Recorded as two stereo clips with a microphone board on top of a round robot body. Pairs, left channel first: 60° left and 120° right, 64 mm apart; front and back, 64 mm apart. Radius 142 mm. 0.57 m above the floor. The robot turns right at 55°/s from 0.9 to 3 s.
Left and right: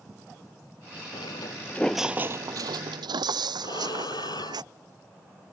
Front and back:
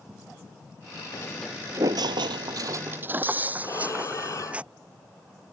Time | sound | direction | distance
1.1 | footsteps | 40° left | ?
3.6 | breathing | 40° left | ?